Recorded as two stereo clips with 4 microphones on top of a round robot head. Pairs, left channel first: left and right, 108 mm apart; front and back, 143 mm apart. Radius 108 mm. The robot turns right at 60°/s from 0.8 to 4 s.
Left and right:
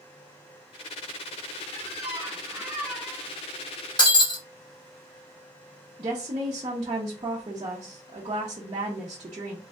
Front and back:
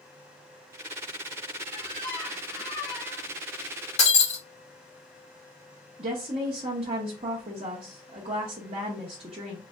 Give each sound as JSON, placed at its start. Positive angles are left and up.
{"t": 1.7, "sound": "a squeak", "azimuth_deg": -80, "distance_m": 1.8}
{"t": 4.0, "sound": "breaking glass", "azimuth_deg": 40, "distance_m": 1.6}
{"t": 6.0, "sound": "a woman speaking", "azimuth_deg": -135, "distance_m": 0.8}